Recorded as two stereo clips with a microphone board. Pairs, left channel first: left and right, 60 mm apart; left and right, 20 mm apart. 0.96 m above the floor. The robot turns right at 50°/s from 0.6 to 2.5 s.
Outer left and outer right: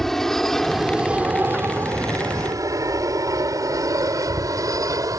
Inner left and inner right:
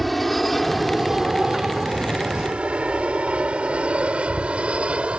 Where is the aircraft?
5° left (ahead or behind); by 5.2 s 70° right (ahead or behind).